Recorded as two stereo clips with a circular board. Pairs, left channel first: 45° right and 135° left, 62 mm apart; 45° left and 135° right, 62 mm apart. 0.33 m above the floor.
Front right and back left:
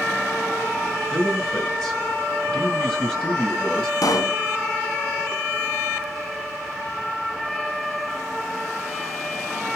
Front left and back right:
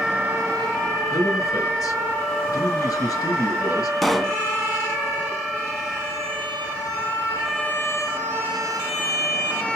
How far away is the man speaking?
About 5 m.